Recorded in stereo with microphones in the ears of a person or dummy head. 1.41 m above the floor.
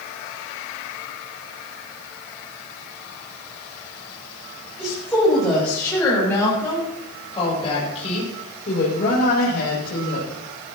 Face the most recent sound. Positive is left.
turn(degrees=70)  # may be behind; listen again after turning